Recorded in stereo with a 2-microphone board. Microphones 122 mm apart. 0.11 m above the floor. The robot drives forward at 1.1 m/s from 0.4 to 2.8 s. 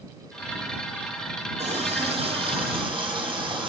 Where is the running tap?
65° right (ahead or behind), 2.5 m; by 3.7 s 45° right (ahead or behind), 3 m.